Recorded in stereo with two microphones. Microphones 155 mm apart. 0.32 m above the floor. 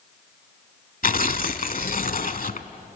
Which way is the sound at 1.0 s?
65° left (ahead or behind).